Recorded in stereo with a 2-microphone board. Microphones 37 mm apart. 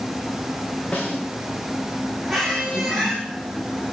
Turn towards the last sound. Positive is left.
turn(degrees=0)  # may be behind; listen again after turning